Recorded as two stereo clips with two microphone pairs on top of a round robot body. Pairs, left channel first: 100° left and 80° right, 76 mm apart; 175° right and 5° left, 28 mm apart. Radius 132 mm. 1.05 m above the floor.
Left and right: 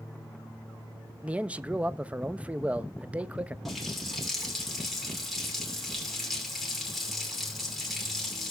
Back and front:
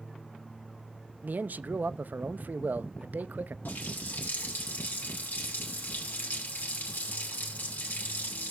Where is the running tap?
170° right, 2.5 m.